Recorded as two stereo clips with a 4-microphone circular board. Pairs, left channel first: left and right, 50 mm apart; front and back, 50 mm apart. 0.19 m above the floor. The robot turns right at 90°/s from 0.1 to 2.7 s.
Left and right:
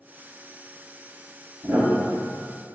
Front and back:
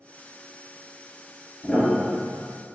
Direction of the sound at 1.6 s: 95° right.